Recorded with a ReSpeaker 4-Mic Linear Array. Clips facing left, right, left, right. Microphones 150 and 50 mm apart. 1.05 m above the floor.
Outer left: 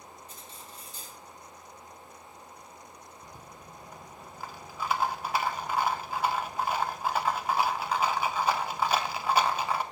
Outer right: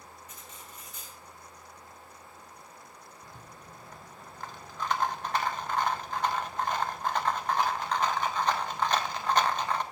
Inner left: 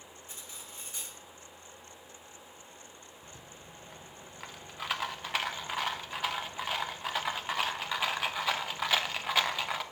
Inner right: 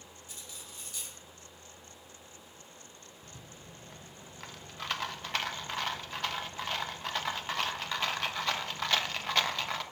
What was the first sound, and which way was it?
Cutlery clinking, 30° left (ahead or behind).